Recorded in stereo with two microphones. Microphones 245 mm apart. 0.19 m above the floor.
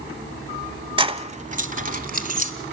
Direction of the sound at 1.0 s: 20° right (ahead or behind).